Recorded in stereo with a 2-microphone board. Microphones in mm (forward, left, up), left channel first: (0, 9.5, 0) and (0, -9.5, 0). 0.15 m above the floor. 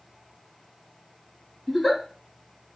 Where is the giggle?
10° left (ahead or behind), 1.1 m.